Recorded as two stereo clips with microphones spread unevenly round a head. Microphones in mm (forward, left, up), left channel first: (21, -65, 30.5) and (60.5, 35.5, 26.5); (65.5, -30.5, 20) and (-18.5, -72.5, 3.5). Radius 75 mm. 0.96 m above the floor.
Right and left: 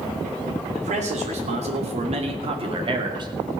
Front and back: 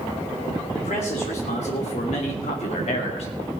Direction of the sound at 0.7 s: 65° left.